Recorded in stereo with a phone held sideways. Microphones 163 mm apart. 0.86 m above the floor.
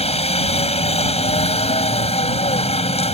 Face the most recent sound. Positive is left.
turn(degrees=40)  # may be behind; listen again after turning